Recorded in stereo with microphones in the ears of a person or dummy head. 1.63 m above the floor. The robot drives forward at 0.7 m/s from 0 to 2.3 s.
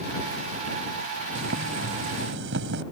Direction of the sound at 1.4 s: 75° right (ahead or behind).